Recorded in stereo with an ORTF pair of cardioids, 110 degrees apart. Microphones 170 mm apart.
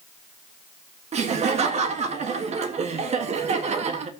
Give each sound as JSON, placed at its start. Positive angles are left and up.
{"t": 1.1, "sound": "laughter", "azimuth_deg": -40, "distance_m": 1.6}